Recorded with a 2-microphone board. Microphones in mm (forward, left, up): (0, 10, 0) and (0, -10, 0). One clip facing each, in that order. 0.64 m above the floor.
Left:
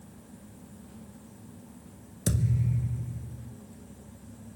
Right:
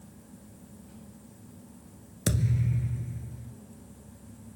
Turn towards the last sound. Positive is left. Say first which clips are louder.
# even
turn(degrees=-30)  # may be behind; listen again after turning